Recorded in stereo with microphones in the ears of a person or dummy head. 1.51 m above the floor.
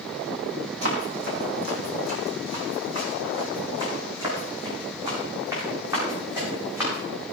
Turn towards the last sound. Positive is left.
turn(degrees=-10)  # may be behind; listen again after turning